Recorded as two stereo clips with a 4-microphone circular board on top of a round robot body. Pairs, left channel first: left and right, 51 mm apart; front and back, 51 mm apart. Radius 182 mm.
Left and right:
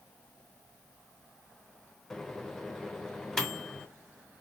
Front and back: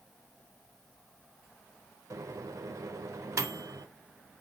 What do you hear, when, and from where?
2.1 s a microwave: 175° left, 0.5 m